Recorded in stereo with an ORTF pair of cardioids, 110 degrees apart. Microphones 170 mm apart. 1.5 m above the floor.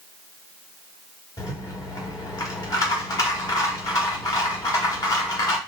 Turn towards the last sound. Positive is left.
turn(degrees=20)